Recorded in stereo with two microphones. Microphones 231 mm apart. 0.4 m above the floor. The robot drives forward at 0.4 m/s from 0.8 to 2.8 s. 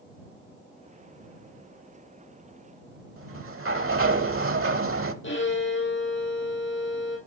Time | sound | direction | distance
3.2 | a sliding door | 70° right (ahead or behind) | 0.6 m
5.2 | a violin | 60° left (ahead or behind) | 3 m